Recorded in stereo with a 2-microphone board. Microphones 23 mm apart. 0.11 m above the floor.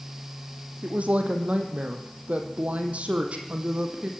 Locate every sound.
0.8 s a woman speaking: 70° right (ahead or behind), 4 m; by 4.1 s 60° right (ahead or behind), 4.5 m